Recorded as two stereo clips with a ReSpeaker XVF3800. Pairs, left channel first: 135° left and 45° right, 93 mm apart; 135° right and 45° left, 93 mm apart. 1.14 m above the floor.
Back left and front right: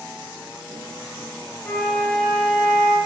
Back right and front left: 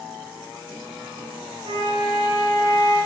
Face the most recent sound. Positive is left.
turn(degrees=55)